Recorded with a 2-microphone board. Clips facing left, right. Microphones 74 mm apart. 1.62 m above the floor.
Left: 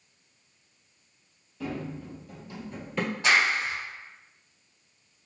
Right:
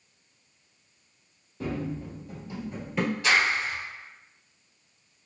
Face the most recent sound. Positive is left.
turn(degrees=30)  # may be behind; listen again after turning